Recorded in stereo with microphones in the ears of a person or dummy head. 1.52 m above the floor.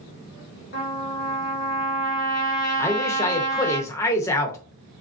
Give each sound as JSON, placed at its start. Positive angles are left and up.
{"t": 0.7, "sound": "a trumpet", "side_deg": 50, "distance_m": 1.2}
{"t": 2.8, "sound": "a man speaking", "side_deg": 15, "distance_m": 0.7}